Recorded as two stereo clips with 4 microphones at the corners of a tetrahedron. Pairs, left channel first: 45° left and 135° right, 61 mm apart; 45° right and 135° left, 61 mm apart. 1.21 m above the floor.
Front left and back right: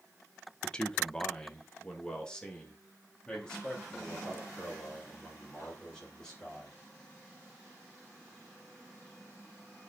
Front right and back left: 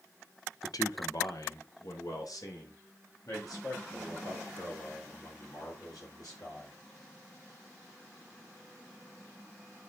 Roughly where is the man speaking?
Ahead right.